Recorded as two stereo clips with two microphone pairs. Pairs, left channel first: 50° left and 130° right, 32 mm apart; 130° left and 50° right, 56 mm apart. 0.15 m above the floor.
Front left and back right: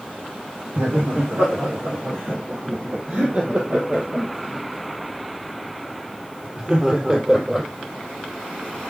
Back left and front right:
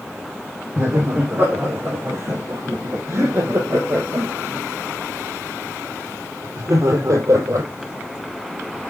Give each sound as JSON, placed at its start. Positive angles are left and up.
{"t": 0.8, "sound": "laughter", "azimuth_deg": -105, "distance_m": 5.5}